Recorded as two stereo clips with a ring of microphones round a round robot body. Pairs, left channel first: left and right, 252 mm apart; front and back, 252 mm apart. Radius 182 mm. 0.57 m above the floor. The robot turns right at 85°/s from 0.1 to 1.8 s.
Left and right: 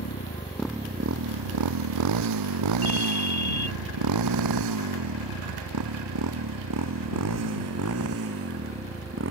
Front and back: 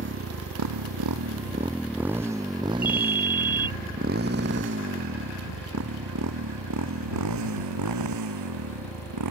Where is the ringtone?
95° left.